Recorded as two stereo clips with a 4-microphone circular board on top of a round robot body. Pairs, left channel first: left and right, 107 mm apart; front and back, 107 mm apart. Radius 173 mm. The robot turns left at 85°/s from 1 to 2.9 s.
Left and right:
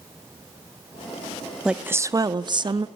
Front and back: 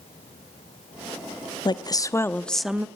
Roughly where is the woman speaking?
Ahead.